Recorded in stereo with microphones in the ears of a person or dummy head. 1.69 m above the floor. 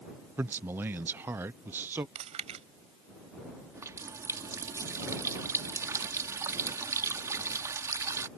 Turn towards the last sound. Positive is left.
turn(degrees=-15)  # may be behind; listen again after turning